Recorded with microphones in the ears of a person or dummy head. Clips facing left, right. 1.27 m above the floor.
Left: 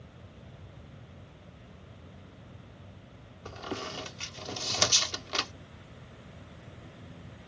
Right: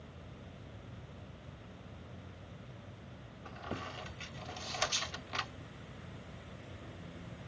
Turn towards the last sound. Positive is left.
turn(degrees=60)  # may be behind; listen again after turning